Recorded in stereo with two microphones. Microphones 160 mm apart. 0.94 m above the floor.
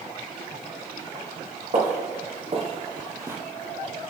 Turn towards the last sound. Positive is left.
turn(degrees=-15)  # may be behind; listen again after turning